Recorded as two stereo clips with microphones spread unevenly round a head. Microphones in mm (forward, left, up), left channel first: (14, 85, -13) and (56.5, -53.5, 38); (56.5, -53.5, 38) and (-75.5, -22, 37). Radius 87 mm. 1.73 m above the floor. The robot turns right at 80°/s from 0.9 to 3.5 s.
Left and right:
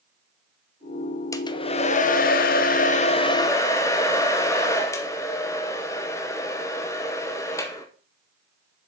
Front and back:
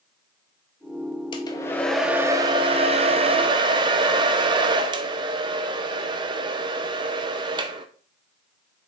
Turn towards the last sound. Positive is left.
turn(degrees=-165)